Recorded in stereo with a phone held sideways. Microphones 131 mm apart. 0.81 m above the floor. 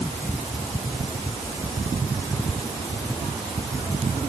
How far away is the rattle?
I don't hear a rattle.